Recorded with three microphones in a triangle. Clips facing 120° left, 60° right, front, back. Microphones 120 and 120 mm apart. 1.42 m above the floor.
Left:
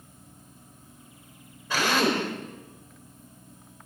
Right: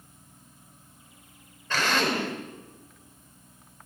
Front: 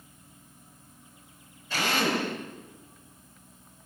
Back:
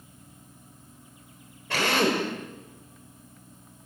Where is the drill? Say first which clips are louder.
Left 2 dB, back 3 dB; 160° right, 6.5 m.